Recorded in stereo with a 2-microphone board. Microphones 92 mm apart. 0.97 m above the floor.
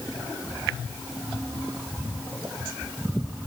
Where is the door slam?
I don't hear a door slam.